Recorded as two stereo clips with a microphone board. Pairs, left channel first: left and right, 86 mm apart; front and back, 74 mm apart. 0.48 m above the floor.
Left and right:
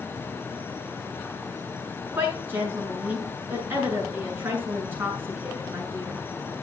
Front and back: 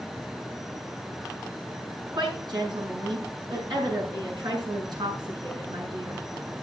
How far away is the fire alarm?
No fire alarm in this recording.